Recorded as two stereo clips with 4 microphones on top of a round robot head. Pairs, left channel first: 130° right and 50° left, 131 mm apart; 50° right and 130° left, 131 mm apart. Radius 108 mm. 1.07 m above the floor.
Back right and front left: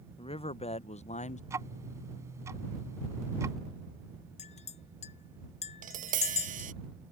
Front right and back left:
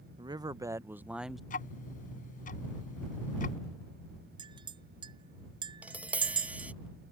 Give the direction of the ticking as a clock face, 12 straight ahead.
1 o'clock.